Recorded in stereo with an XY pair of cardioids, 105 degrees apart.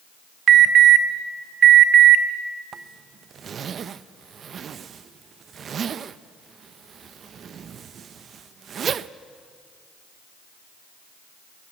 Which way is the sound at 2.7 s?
50° right.